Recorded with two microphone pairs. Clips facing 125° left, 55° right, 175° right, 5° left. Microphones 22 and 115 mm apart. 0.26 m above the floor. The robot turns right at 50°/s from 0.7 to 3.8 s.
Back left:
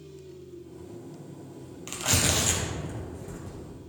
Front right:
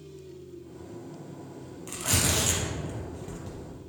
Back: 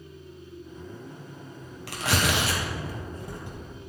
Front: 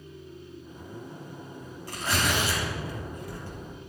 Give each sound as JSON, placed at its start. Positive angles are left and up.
{"t": 1.9, "sound": "tearing paper", "azimuth_deg": 180, "distance_m": 1.8}